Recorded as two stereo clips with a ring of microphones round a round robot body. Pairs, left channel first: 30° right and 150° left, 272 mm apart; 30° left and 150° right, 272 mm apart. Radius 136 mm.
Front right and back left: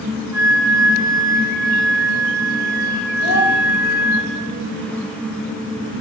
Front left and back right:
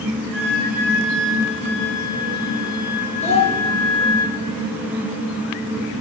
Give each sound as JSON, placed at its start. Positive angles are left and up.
{"t": 0.3, "sound": "a flute", "azimuth_deg": -130, "distance_m": 7.0}
{"t": 3.2, "sound": "a child speaking", "azimuth_deg": -40, "distance_m": 3.5}